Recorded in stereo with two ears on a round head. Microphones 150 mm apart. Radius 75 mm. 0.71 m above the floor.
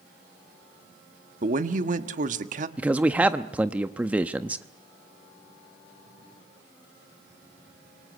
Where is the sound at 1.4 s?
45° right (ahead or behind), 1.4 m.